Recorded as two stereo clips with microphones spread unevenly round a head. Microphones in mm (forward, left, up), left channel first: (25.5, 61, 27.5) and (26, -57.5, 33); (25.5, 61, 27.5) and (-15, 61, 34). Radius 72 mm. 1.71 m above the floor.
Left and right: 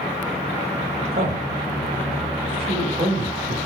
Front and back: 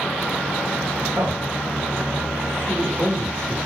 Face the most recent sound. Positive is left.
turn(degrees=-135)